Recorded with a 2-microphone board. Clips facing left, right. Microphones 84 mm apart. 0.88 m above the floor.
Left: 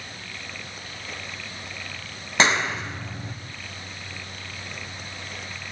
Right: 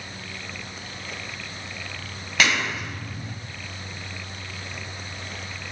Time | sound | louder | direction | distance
2.4 | a clap | left 2 dB | 25° left (ahead or behind) | 4 m